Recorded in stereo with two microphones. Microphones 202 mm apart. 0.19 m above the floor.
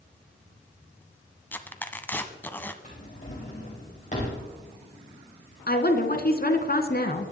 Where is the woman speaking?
50° left (ahead or behind), 1.8 m.